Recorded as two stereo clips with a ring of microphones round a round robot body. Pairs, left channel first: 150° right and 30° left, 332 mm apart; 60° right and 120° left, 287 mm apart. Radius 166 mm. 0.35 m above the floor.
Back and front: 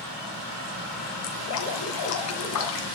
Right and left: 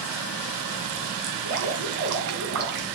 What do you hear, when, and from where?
1.2 s dripping: 170° left, 2 m